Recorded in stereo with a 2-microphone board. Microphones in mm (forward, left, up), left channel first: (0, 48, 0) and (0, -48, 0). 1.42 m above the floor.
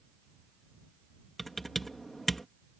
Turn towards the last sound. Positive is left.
turn(degrees=5)  # may be behind; listen again after turning